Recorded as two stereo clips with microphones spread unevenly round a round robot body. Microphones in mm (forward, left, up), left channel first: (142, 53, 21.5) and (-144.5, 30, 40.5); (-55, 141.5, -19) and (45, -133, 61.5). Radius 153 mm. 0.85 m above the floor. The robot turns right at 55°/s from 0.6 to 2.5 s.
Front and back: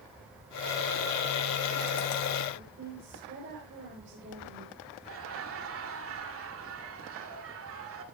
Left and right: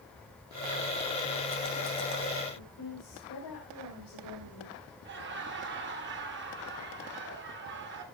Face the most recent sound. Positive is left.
turn(degrees=-125)